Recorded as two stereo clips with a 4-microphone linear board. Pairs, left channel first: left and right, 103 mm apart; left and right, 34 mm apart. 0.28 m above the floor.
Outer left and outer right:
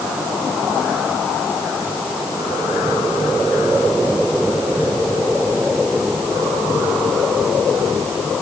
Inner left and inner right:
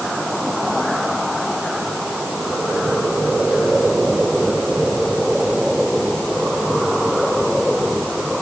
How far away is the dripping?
No dripping in this recording.